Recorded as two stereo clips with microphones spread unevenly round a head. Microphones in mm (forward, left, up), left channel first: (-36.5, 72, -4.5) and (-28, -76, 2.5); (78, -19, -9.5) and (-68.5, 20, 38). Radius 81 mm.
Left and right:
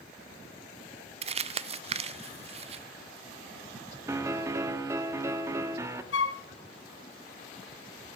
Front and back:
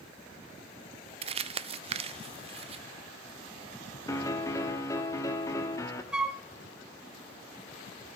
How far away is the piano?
About 1.2 m.